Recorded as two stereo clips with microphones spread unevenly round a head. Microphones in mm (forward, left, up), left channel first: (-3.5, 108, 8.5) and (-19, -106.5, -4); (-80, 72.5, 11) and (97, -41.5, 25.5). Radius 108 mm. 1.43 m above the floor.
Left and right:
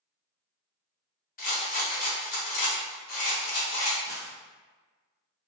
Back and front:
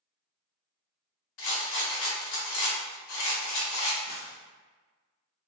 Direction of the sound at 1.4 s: 140° left.